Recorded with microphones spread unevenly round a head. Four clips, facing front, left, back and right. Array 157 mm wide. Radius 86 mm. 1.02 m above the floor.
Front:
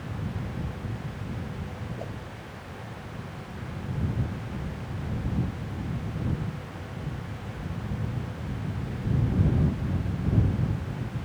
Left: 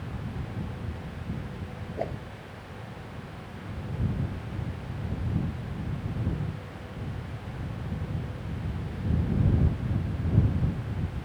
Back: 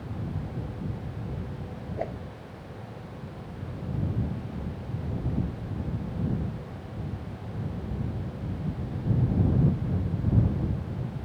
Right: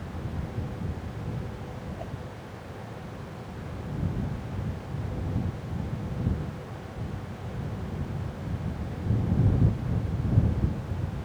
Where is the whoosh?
135° left.